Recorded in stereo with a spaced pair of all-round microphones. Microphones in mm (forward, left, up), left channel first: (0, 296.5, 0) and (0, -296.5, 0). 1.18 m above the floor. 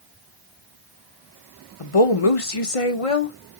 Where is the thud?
I don't hear a thud.